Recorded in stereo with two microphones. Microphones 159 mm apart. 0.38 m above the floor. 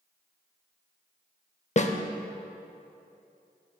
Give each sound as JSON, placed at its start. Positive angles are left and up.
{"t": 1.8, "sound": "a snare drum", "side_deg": 45, "distance_m": 0.5}